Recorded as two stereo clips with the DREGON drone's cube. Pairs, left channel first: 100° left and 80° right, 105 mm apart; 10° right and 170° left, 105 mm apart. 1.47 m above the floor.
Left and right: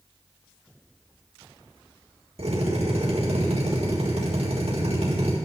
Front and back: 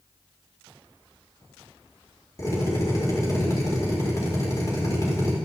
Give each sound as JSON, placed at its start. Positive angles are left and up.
{"t": 2.4, "sound": "a drill", "azimuth_deg": -70, "distance_m": 6.0}